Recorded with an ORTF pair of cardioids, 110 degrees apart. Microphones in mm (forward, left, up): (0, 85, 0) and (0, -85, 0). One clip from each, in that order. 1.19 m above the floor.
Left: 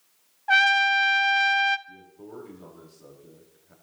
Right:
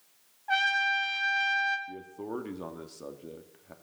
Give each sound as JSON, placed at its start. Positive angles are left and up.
{"t": 0.5, "sound": "a trumpet", "azimuth_deg": 35, "distance_m": 0.6}
{"t": 1.9, "sound": "a man speaking", "azimuth_deg": -60, "distance_m": 1.9}